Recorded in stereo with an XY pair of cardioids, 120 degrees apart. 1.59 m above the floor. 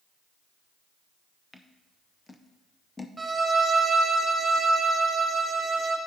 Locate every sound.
1.5 s scissors: 20° left, 0.6 m
3.2 s a violin: 20° right, 1.0 m